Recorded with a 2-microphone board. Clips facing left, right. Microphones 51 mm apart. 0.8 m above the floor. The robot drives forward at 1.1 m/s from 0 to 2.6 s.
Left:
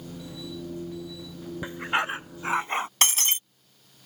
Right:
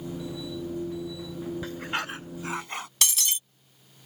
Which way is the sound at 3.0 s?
40° left (ahead or behind).